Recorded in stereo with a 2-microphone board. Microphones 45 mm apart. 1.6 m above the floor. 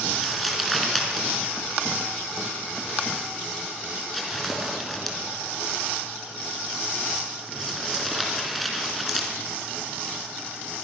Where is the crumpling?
Centre (ahead or behind), 4.5 m.